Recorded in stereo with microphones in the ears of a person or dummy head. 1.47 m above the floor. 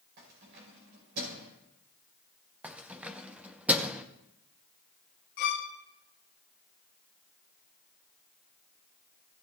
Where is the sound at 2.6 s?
5° right (ahead or behind), 0.7 m.